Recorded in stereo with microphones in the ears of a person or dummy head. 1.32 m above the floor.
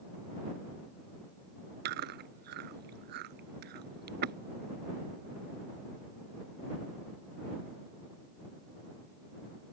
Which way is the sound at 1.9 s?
55° right (ahead or behind).